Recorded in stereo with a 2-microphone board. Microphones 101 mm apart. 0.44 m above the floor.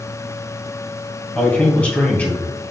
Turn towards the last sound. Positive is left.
turn(degrees=15)  # may be behind; listen again after turning